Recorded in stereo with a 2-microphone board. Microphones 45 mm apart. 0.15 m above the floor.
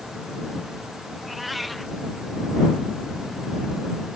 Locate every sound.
1.2 s a cat meowing: centre (ahead or behind)